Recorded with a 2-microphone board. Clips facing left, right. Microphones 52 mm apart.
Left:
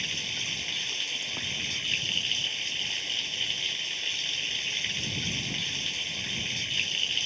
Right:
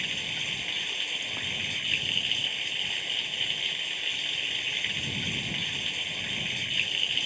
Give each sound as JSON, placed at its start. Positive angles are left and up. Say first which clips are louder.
{"t": 0.0, "sound": "running water", "louder": "right 1 dB", "side_deg": -10}